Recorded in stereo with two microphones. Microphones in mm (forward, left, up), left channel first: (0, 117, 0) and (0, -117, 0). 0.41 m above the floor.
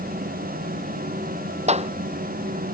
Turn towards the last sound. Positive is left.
turn(degrees=-30)  # may be behind; listen again after turning